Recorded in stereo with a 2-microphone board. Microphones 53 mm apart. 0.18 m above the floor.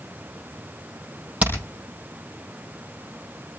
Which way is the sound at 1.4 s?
25° right (ahead or behind).